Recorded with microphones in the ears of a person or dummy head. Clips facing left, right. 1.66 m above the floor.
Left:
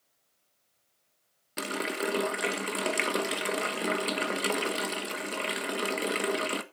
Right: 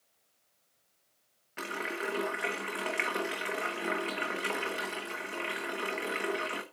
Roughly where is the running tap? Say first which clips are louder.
Left 5 dB; left.